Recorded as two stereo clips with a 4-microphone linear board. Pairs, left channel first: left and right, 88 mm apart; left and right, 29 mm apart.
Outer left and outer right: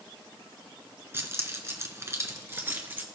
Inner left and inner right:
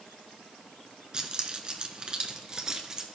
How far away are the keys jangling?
About 1.2 m.